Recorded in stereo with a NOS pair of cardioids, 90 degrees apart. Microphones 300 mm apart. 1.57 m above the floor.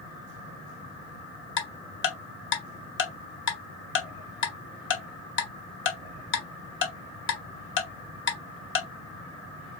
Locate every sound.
1.6 s ticking: 40° left, 0.8 m